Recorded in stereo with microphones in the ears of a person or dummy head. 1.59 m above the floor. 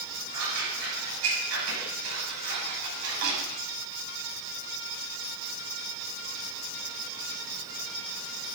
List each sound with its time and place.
0.3 s scissors: 85° right, 7 m